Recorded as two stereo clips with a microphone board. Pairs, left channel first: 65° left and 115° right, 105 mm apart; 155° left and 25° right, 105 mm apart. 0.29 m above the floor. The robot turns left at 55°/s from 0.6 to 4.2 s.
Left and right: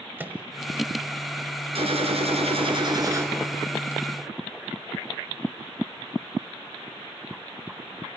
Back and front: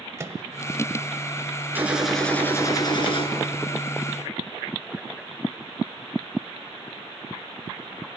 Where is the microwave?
55° right, 1.2 m.